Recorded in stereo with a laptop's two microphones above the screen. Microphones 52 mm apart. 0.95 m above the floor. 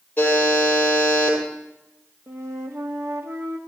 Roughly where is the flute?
Right.